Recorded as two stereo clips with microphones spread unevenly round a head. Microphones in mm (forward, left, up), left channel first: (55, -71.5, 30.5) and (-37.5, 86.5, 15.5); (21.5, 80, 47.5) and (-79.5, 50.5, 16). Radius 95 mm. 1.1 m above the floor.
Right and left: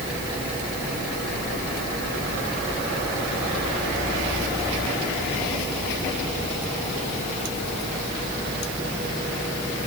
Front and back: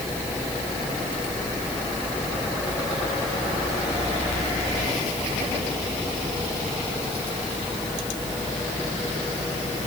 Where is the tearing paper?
No tearing paper in this recording.